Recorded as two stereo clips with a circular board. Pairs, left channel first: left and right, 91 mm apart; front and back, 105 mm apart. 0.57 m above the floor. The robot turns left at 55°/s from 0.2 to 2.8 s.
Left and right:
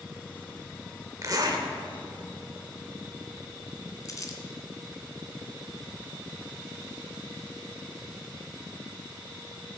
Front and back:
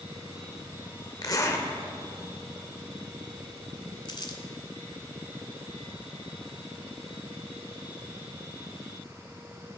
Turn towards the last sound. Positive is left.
turn(degrees=40)